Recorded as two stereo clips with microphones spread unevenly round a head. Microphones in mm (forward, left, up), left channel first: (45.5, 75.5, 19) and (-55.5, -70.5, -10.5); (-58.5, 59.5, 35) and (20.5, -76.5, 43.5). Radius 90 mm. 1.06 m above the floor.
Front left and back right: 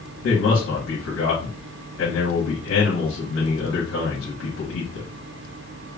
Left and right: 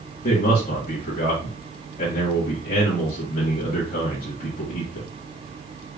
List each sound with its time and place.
0.2 s a man speaking: 75° left, 1.5 m